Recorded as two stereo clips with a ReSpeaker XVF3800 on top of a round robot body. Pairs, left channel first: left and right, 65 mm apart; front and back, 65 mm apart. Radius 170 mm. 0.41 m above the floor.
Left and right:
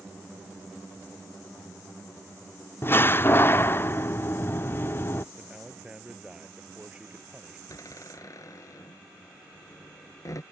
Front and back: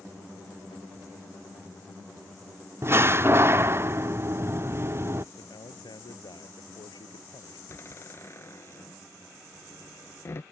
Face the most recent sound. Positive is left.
turn(degrees=55)